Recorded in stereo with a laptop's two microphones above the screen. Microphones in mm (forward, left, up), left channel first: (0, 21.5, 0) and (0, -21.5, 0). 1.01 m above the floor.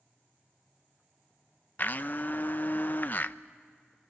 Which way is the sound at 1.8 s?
45° left (ahead or behind).